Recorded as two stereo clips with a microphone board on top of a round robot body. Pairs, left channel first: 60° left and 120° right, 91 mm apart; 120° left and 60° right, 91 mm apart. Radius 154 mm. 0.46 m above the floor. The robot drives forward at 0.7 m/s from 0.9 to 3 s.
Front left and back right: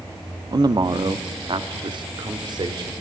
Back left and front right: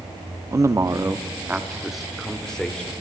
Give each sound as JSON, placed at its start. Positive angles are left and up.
{"t": 0.5, "sound": "a man speaking", "azimuth_deg": -105, "distance_m": 0.9}